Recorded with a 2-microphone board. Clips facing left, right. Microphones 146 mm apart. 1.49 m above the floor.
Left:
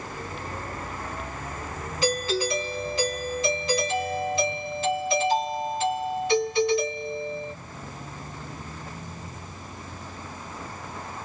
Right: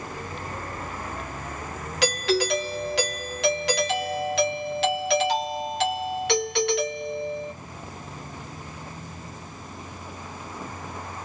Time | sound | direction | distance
2.0 | a doorbell | 75° right (ahead or behind) | 1.6 m